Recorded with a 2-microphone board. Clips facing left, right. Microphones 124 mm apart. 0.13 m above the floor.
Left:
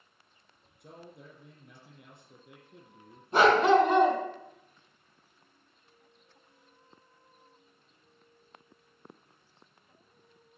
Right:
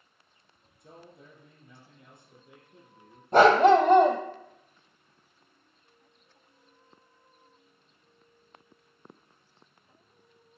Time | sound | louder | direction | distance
0.8 | a man speaking | left 1 dB | 65° left (ahead or behind) | 3.5 m
3.3 | a dog barking | right 4 dB | 45° right (ahead or behind) | 1.6 m